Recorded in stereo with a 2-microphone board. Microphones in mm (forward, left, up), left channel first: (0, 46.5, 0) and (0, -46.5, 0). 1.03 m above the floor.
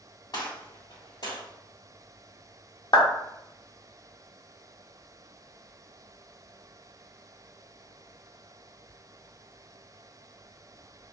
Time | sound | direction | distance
0.3 | a gunshot | 50° left (ahead or behind) | 1.4 m
2.9 | a clap | 45° left (ahead or behind) | 0.7 m